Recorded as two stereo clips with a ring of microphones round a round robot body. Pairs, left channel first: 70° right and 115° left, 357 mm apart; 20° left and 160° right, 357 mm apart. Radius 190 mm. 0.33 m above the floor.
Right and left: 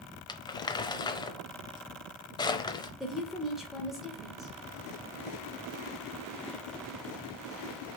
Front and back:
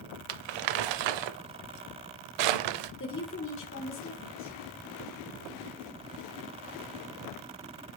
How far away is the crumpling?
About 0.7 m.